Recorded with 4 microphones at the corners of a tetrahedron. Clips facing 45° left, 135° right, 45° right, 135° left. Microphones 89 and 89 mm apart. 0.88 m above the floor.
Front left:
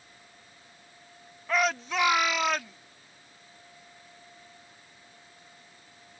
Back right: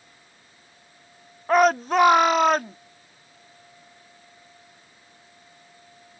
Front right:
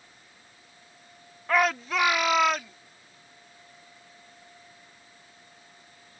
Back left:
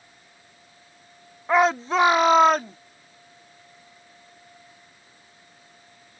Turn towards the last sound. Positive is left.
turn(degrees=-175)